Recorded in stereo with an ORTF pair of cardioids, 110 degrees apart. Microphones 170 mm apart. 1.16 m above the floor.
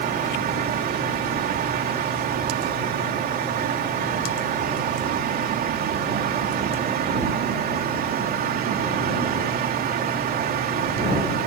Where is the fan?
65° right.